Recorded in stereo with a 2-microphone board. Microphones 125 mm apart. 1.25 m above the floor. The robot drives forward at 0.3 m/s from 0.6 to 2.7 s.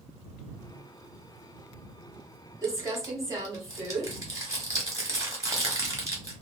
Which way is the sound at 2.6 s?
25° right (ahead or behind).